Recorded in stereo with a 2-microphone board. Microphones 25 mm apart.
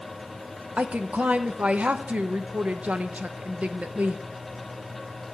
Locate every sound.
0.8 s a woman speaking: 65° right (ahead or behind), 0.8 m